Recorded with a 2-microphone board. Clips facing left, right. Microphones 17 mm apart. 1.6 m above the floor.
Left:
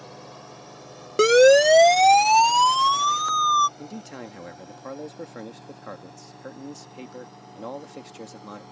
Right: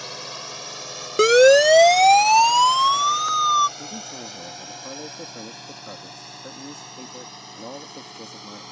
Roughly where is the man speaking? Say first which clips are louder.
Right 3 dB; left.